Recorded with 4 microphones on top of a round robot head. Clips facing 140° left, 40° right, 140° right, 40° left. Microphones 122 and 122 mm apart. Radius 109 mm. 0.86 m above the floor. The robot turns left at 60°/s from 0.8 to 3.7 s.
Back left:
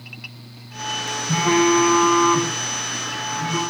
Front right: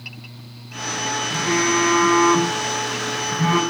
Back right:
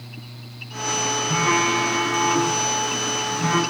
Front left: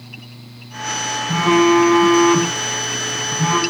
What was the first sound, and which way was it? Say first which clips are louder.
A phone buzzing: back left 5 dB, front left 10 dB; 110° left.